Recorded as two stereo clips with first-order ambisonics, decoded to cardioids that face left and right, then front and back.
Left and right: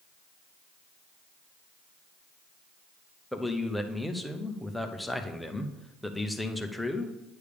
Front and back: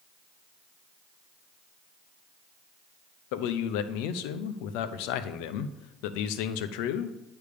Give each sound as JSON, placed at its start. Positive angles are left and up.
{"t": 3.3, "sound": "a man speaking", "azimuth_deg": 0, "distance_m": 0.7}